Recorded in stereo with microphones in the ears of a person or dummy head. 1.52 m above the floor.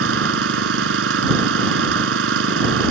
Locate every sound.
0.0 s an engine running: 55° right (ahead or behind)